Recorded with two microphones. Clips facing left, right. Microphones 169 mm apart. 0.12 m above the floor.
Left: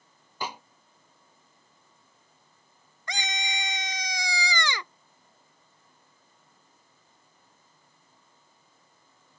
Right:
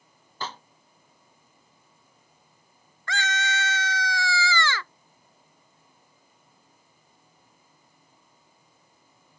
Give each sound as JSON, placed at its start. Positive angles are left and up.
{"t": 0.4, "sound": "a snare drum", "side_deg": 15}
{"t": 3.1, "sound": "a scream", "side_deg": 20}